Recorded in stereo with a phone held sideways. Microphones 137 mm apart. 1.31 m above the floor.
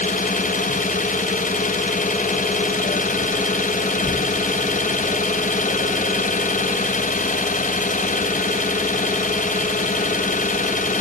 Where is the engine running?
65° left (ahead or behind), 1.2 m.